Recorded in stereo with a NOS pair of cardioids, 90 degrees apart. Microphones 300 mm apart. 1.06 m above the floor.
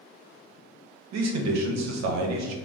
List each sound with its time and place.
1.1 s a man speaking: 65° right, 0.7 m